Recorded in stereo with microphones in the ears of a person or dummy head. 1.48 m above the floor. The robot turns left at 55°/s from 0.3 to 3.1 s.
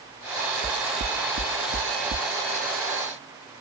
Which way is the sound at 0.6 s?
40° right (ahead or behind).